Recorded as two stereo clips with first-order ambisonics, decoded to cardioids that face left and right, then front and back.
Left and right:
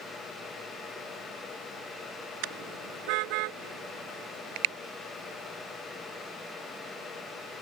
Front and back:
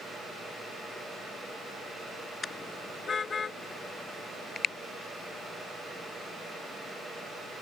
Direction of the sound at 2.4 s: 75° right.